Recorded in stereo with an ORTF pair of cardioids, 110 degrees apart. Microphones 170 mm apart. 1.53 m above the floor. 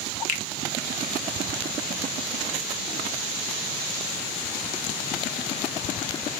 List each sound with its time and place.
0.3 s a finger snap: 50° left, 1.4 m